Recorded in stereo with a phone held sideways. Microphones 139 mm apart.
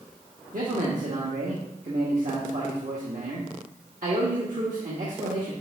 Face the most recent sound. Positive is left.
turn(degrees=-75)  # may be behind; listen again after turning